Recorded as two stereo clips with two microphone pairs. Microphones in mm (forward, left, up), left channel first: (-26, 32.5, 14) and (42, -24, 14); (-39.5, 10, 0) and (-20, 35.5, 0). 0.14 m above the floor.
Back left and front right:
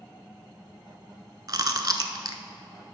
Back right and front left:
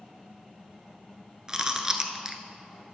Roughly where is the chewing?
Ahead.